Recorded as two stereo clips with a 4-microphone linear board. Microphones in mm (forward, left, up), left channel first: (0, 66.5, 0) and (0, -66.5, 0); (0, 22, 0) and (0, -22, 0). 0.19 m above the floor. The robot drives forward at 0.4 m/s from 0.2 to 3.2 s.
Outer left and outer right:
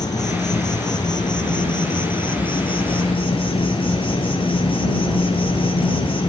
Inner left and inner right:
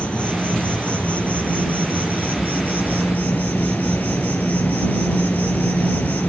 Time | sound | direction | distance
0.0 | an insect | 30° left (ahead or behind) | 3.5 m